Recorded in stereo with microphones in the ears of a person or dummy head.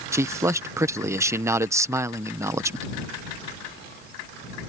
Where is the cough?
I don't hear a cough.